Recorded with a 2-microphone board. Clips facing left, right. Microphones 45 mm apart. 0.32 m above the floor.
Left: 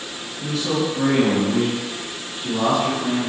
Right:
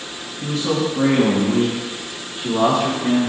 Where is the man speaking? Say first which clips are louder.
Right 2 dB; 40° right (ahead or behind), 3.5 m; by 3.3 s 70° right (ahead or behind), 5.5 m.